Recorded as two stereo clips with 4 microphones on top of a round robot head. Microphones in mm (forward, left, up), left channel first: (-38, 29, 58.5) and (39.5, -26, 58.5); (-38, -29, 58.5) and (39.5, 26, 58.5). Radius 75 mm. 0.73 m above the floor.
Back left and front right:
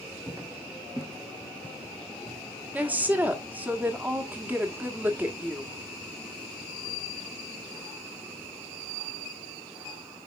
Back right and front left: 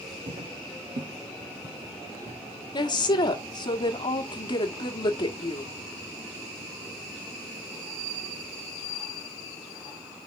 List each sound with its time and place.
0.3 s footsteps: 40° left, 1.7 m; by 2.4 s 60° left, 3.5 m
2.7 s a woman speaking: 110° right, 1.4 m